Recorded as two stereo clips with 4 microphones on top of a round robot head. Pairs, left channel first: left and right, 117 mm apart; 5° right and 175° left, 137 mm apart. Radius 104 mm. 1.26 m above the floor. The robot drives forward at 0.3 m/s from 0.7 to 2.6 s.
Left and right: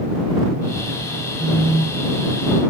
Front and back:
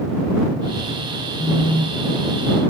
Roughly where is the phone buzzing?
Behind.